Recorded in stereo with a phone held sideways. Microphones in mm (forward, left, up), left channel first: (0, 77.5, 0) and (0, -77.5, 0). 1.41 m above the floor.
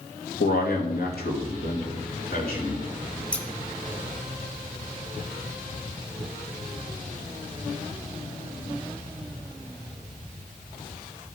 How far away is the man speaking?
About 2.0 m.